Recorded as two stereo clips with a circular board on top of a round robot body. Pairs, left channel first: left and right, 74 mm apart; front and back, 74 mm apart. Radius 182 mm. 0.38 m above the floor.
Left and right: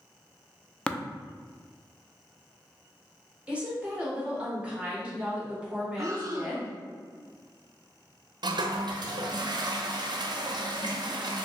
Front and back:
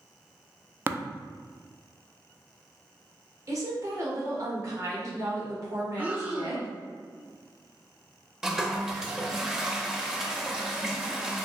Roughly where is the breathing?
Behind right.